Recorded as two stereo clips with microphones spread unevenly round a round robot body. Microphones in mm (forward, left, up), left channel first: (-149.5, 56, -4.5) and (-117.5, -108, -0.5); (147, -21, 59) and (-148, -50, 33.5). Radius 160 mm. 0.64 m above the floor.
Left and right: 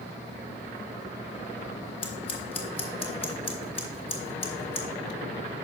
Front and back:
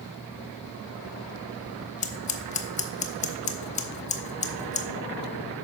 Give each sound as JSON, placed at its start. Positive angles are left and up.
{"t": 2.0, "sound": "scissors", "azimuth_deg": 65, "distance_m": 0.7}